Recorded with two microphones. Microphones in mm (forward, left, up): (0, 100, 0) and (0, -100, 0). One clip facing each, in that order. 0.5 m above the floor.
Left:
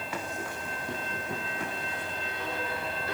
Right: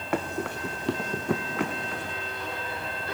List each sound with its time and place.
0.1 s running footsteps: 60° right (ahead or behind), 1.9 m; by 2.2 s 65° right (ahead or behind), 2 m